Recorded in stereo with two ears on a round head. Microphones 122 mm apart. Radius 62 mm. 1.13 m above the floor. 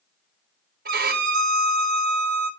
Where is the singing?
I don't hear singing.